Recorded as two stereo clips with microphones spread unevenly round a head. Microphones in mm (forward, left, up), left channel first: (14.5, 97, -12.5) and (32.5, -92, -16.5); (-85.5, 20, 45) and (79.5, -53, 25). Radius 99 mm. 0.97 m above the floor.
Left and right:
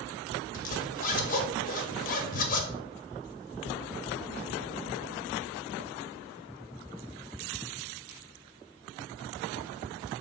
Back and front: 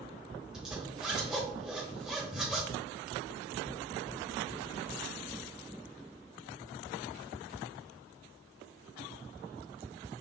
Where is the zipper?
70° left, 0.7 m.